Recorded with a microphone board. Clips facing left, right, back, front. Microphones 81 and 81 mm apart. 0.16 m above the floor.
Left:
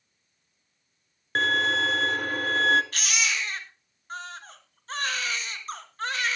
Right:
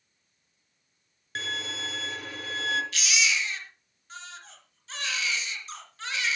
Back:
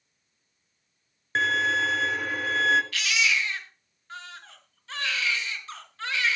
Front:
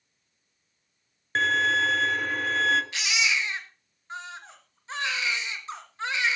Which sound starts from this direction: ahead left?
A baby crying, at 2.9 s.